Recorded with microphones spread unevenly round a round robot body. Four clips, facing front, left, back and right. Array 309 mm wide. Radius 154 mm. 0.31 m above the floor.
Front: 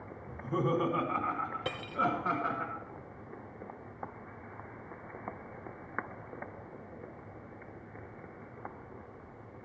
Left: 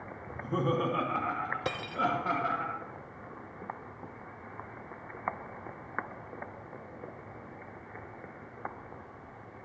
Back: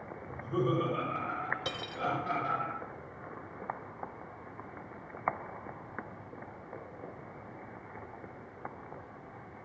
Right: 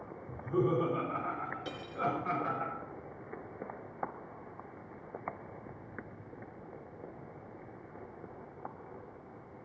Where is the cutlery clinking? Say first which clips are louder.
Left 6 dB, front 4 dB; 65° left, 0.9 m.